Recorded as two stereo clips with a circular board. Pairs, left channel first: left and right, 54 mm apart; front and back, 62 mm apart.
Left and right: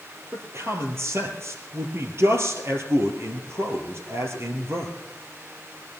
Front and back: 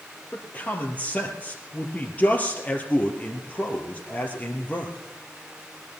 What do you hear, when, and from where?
0.3 s a man speaking: 60° right, 2.5 m